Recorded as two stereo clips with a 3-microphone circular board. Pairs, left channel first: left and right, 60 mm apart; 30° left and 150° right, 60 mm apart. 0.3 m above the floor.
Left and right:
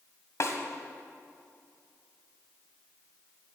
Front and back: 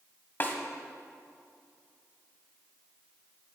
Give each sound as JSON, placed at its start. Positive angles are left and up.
{"t": 0.4, "sound": "a snare drum", "azimuth_deg": 75, "distance_m": 1.2}